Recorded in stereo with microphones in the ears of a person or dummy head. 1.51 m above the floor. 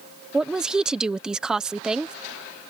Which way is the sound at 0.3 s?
5° right (ahead or behind).